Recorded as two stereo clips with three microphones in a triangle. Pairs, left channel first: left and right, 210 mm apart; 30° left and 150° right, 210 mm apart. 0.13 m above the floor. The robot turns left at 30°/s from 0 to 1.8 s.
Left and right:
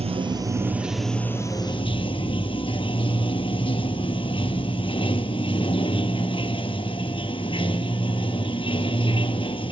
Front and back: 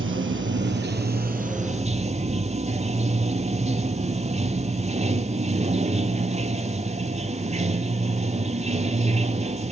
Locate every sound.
0.0 s running water: 150° right, 0.8 m; by 9.7 s 155° left, 0.8 m